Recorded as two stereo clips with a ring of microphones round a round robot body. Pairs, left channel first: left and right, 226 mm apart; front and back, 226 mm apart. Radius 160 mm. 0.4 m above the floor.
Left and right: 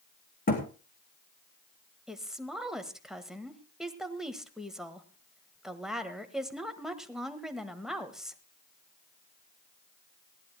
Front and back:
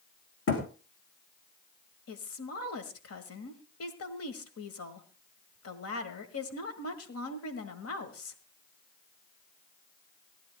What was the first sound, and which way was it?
A thud, 35° left.